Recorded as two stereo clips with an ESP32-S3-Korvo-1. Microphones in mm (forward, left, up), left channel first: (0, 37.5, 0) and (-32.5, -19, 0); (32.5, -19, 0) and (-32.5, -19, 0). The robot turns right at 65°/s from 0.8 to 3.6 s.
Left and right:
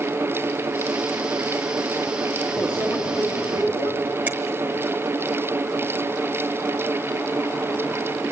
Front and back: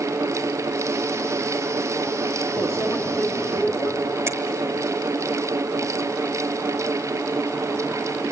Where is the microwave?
25° right, 3 m; by 3.9 s 40° left, 3 m.